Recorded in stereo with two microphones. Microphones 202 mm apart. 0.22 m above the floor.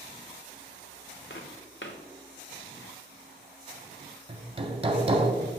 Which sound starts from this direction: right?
Hammering, at 4.3 s.